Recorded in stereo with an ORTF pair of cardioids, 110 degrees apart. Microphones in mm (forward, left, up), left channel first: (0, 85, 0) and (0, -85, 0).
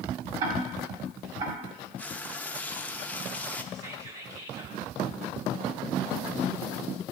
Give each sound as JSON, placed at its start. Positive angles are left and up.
{"t": 0.4, "sound": "ticking", "azimuth_deg": -65, "distance_m": 2.5}
{"t": 2.0, "sound": "frying", "azimuth_deg": 10, "distance_m": 0.6}
{"t": 3.7, "sound": "whispering", "azimuth_deg": -45, "distance_m": 1.9}